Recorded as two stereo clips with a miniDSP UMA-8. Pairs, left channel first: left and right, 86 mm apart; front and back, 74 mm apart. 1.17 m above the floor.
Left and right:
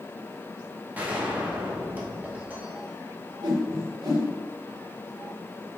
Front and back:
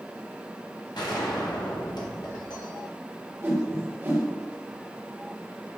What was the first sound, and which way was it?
A gunshot, 20° right.